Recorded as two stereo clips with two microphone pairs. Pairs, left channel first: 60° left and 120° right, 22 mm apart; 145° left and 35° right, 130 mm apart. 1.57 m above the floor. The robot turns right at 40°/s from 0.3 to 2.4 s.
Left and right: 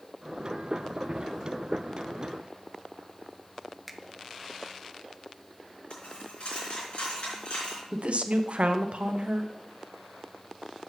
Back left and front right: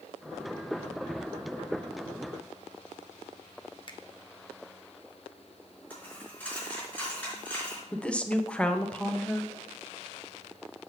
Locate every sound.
3.9 s a finger snap: 150° left, 0.8 m
5.9 s a dropped coin: 65° left, 4.5 m
7.9 s a woman speaking: 135° right, 0.9 m